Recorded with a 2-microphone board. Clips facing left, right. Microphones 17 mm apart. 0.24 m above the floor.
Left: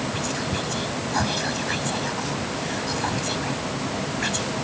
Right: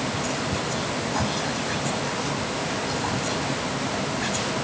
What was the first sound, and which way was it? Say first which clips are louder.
Whispering: even; 20° left (ahead or behind).